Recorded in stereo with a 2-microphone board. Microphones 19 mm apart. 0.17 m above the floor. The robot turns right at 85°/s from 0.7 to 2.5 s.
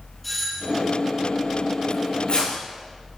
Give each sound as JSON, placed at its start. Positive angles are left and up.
{"t": 0.2, "sound": "a doorbell", "side_deg": 10, "distance_m": 7.0}
{"t": 1.9, "sound": "tearing paper", "side_deg": 35, "distance_m": 8.0}